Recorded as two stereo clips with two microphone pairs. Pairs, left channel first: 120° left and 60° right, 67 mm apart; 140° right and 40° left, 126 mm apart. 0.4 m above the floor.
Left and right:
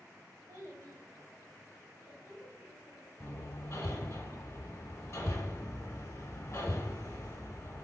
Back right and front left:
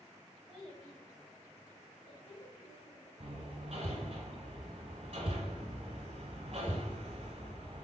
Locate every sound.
0.5 s a child speaking: 50° right, 1.2 m; by 3.1 s 165° right, 1.4 m
3.2 s hammering: 75° left, 0.7 m